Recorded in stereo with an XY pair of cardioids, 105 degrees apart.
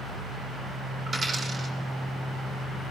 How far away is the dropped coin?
About 5 m.